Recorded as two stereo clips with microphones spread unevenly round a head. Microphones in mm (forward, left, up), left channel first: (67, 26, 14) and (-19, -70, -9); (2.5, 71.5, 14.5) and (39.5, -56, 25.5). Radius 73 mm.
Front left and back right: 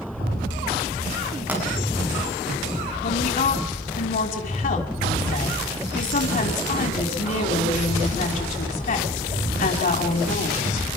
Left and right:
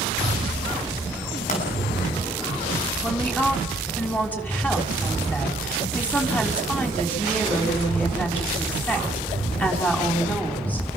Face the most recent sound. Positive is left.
turn(degrees=25)